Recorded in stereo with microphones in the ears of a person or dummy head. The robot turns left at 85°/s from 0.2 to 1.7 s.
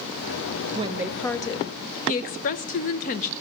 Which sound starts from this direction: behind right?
A woman speaking, at 0.8 s.